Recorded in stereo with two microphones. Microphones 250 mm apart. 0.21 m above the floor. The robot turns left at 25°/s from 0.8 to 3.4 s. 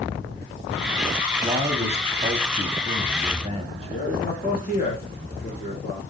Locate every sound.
1.4 s a man speaking: 25° right (ahead or behind), 1.0 m
3.9 s a man speaking: 35° left (ahead or behind), 3 m